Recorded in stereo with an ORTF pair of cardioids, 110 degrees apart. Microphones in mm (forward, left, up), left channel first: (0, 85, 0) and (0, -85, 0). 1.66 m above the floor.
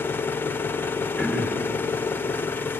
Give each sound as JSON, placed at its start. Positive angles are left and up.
{"t": 0.0, "sound": "an engine running", "azimuth_deg": 15, "distance_m": 0.9}
{"t": 1.2, "sound": "throat clearing", "azimuth_deg": -5, "distance_m": 6.5}